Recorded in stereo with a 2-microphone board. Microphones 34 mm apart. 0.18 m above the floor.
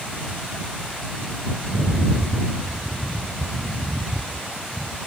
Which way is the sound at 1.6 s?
65° right (ahead or behind).